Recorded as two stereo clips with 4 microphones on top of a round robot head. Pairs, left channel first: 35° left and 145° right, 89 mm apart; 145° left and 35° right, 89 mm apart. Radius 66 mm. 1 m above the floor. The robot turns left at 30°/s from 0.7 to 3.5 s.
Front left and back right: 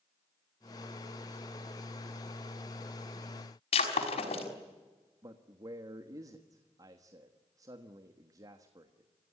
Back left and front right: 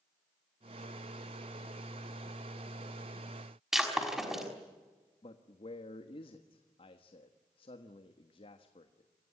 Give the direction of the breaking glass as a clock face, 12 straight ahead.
10 o'clock.